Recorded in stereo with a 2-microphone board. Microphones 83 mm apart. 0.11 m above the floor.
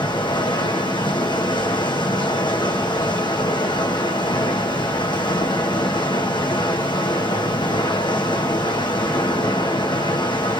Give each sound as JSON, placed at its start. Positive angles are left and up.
{"t": 0.0, "sound": "running water", "side_deg": 70, "distance_m": 1.1}